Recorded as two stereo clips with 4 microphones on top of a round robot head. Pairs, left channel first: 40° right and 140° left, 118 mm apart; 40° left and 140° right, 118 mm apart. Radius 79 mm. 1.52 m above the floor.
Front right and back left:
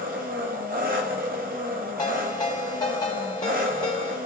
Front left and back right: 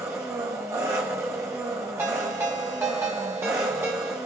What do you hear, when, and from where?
0.0 s an engine running: 150° left, 0.8 m
2.0 s a ringtone: 80° right, 1.0 m